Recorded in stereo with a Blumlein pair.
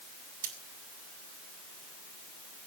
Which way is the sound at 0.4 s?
60° right.